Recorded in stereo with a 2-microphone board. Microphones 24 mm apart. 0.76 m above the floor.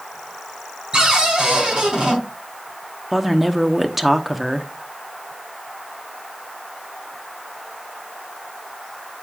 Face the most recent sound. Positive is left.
turn(degrees=-10)  # may be behind; listen again after turning